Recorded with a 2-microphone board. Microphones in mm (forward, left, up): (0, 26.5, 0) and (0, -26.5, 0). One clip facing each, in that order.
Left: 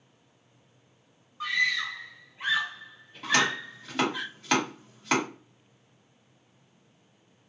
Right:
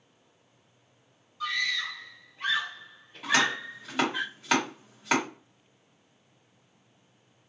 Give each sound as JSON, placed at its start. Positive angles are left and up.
{"t": 1.4, "sound": "a scream", "side_deg": 30, "distance_m": 1.7}
{"t": 3.2, "sound": "chopping", "side_deg": -5, "distance_m": 1.6}